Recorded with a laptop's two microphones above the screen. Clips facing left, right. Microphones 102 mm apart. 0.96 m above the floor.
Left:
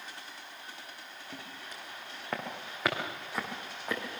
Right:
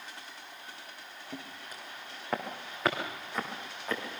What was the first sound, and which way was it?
Footsteps, 15° right (ahead or behind).